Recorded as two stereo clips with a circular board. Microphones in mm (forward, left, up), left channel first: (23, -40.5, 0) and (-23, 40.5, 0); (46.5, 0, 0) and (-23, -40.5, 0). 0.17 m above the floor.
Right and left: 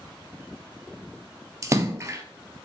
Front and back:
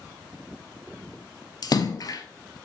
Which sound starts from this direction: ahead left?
A splash, at 1.6 s.